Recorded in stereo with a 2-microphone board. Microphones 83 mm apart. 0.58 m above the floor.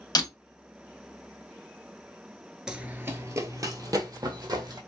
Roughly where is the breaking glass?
Left.